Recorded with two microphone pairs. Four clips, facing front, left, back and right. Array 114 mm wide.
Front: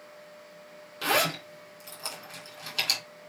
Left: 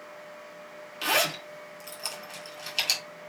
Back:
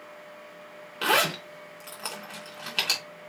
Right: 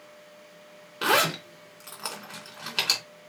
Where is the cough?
No cough in this recording.